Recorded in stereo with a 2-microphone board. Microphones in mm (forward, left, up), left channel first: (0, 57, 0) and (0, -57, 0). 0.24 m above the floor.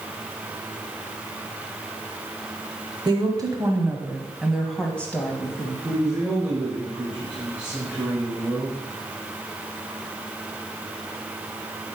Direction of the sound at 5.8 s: 5° right (ahead or behind).